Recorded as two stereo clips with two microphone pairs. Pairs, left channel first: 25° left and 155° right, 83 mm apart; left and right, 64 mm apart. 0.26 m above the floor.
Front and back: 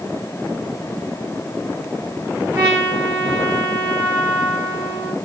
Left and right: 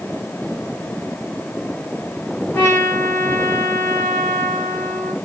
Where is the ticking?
No ticking in this recording.